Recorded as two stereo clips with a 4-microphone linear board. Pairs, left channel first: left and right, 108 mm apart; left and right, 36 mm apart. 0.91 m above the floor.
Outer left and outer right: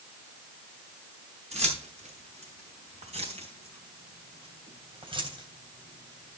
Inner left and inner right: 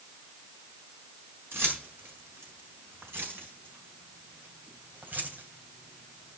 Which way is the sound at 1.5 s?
90° right.